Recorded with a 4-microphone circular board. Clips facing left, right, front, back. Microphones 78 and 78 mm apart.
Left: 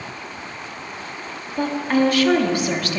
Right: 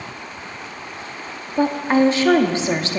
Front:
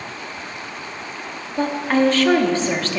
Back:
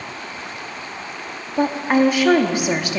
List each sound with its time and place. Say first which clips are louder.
1.6 s a woman speaking: right 3 dB, back 1 dB; 120° right, 0.9 m